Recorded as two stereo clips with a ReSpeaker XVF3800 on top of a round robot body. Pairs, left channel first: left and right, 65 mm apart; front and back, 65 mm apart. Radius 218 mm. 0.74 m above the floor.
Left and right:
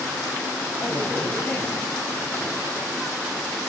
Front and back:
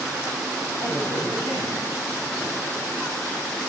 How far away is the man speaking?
About 7.5 m.